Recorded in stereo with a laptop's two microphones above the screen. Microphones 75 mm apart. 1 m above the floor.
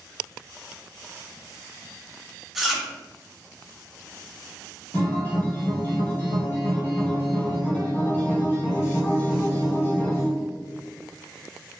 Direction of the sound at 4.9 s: 30° left (ahead or behind).